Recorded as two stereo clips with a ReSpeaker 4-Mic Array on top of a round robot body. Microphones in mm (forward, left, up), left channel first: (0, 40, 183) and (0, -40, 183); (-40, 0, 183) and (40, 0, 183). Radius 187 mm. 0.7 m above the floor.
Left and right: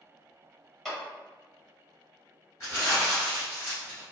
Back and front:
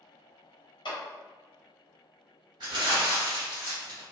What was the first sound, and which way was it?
A clap, 175° left.